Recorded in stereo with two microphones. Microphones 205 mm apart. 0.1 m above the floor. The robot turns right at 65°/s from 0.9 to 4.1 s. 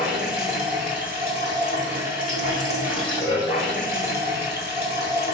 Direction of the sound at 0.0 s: 135° right.